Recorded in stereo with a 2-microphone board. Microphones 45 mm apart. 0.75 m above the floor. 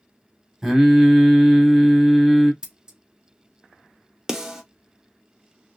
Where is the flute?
No flute in this recording.